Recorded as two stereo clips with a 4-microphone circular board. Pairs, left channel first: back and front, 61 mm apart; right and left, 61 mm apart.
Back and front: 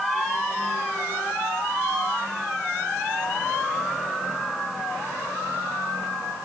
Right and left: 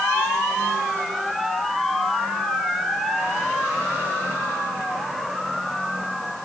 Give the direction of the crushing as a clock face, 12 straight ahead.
I don't hear crushing.